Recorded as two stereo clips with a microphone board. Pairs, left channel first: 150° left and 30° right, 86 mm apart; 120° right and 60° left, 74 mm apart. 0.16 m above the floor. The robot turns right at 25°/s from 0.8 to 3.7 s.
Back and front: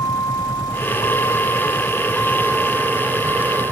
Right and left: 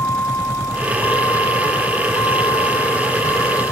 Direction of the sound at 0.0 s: 170° right.